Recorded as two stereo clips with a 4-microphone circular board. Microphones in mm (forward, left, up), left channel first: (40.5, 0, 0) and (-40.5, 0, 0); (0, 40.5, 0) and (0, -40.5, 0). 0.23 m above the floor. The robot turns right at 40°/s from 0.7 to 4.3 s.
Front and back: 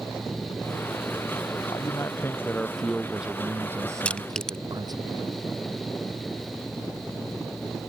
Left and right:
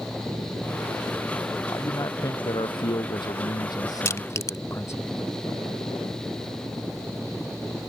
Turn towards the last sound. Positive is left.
turn(degrees=75)